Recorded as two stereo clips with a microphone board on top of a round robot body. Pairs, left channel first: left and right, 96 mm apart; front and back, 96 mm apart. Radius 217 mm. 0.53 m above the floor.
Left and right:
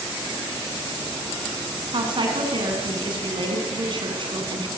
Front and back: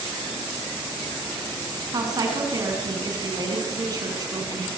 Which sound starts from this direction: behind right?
A woman speaking, at 1.9 s.